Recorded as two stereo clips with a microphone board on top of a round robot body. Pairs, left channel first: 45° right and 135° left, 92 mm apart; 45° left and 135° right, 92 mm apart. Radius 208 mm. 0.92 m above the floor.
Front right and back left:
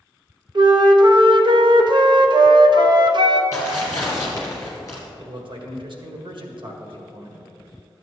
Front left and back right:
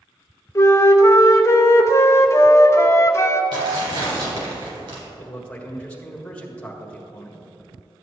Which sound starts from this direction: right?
Tearing paper, at 3.5 s.